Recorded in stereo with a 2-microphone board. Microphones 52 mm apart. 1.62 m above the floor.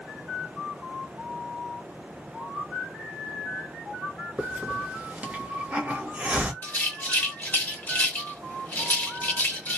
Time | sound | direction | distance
4.4 | a hiss | 20° right (ahead or behind) | 1.0 m
6.6 | a rattle | 30° left (ahead or behind) | 1.3 m